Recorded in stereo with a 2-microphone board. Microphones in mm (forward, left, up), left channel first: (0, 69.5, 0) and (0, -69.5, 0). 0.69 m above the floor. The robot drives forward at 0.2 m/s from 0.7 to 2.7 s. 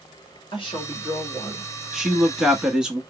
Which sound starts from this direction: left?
A woman speaking, at 0.5 s.